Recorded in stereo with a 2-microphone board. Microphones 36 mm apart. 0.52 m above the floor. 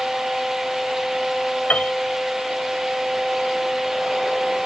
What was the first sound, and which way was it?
A piano, 50° left (ahead or behind).